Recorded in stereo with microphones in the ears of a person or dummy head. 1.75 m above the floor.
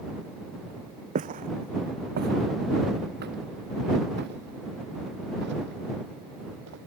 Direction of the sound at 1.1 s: 45° right (ahead or behind).